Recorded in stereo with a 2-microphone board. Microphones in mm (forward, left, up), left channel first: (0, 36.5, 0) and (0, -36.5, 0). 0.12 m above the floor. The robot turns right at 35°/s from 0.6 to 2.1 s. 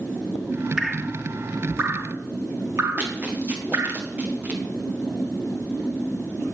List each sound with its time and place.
0.8 s dripping: 5° right (ahead or behind), 0.9 m; by 4.0 s 45° right (ahead or behind), 0.9 m
3.0 s running footsteps: 25° right (ahead or behind), 4.5 m